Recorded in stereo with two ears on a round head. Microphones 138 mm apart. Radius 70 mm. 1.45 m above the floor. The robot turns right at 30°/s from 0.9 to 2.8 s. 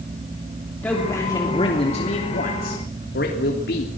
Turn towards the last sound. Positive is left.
turn(degrees=65)